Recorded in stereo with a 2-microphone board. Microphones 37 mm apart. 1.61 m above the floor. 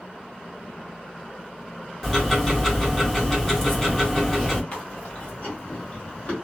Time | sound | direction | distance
2.0 | ticking | 5° left (ahead or behind) | 1.1 m
4.7 | chewing | 40° left (ahead or behind) | 1.2 m